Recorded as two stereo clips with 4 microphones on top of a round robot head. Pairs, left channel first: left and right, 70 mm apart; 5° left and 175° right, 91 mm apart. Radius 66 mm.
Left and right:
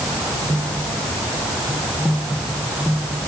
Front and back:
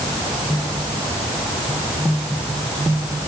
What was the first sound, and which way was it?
Only background noise.